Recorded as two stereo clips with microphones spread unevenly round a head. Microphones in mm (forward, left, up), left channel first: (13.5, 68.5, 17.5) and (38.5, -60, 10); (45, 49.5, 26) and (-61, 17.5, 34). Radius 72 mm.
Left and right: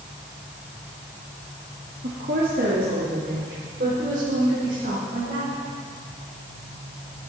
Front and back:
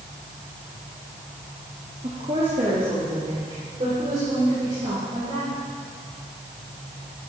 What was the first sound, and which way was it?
A woman speaking, 115° right.